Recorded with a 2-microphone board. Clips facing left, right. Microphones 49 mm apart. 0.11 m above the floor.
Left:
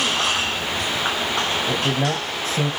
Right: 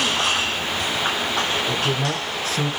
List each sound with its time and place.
1.7 s a man speaking: 35° left (ahead or behind), 2.5 m